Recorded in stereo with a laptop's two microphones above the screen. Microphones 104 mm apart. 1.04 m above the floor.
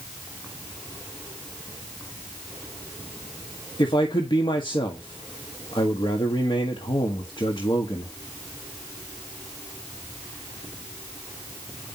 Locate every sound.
3.8 s a man speaking: 50° left (ahead or behind), 1.8 m